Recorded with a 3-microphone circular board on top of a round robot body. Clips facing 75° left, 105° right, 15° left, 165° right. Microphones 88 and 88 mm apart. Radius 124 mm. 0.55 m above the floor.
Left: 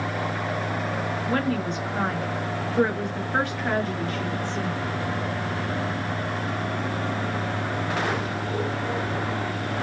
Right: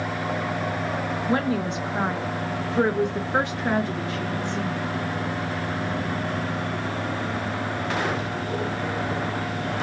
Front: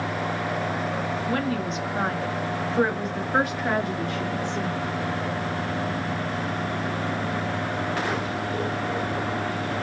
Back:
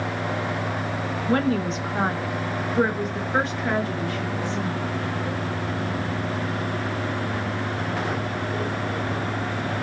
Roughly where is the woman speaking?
Behind.